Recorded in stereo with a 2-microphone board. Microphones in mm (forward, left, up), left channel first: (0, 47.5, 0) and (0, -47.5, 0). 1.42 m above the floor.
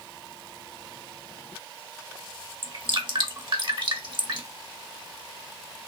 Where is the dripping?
55° right (ahead or behind), 1.4 m.